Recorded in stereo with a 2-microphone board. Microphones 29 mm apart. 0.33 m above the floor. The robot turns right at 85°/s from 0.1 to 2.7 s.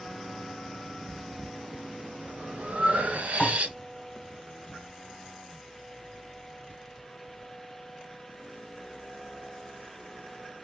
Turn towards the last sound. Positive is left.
turn(degrees=50)  # may be behind; listen again after turning